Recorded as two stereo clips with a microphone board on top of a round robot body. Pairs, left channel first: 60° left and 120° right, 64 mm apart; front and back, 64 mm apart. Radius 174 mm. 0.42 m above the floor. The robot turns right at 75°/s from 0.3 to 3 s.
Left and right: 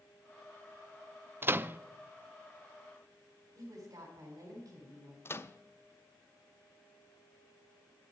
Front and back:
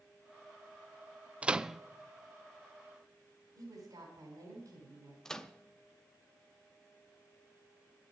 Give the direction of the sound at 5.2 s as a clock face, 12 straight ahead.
9 o'clock.